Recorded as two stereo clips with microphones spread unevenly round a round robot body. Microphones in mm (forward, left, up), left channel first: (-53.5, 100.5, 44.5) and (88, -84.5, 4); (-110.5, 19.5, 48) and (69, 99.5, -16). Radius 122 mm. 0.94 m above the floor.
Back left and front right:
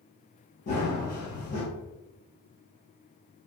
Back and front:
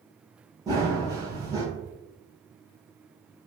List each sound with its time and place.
0.7 s running footsteps: 110° left, 1.2 m